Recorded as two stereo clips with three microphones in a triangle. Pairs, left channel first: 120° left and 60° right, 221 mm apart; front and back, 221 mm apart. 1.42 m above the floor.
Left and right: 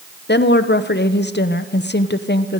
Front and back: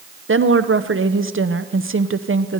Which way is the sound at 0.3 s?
160° left.